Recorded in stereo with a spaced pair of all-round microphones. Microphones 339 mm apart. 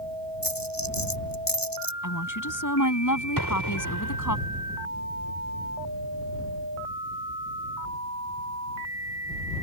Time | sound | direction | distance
0.4 | a dropped coin | 80° left | ?
2.0 | a woman speaking | 65° left (ahead or behind) | ?
3.4 | an explosion | 75° right (ahead or behind) | ?